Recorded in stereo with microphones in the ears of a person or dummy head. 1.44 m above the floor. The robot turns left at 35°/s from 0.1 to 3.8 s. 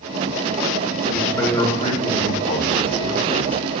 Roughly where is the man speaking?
Behind.